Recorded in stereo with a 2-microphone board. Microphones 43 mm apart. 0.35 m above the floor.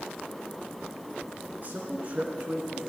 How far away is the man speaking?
About 3.5 m.